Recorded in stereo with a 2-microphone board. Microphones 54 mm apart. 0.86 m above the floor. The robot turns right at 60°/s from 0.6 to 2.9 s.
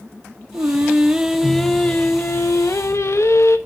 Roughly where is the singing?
Ahead right.